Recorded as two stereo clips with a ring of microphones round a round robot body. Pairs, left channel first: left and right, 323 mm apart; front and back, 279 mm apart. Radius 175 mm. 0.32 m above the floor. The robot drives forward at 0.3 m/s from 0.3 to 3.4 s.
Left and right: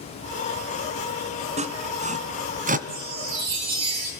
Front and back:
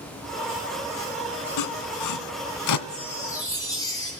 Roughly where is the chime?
Right.